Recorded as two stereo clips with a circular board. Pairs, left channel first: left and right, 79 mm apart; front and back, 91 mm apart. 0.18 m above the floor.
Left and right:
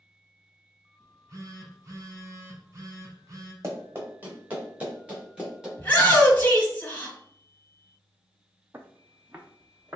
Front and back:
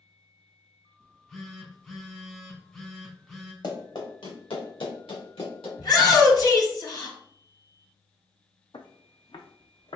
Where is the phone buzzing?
80° right, 1.3 m.